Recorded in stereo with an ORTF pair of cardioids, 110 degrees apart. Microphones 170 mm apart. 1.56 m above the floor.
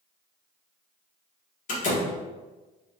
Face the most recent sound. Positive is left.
turn(degrees=55)